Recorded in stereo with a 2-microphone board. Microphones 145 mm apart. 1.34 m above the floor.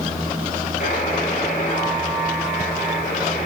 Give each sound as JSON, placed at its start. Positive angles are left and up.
{"t": 0.8, "sound": "a buzzer", "side_deg": 80, "distance_m": 4.5}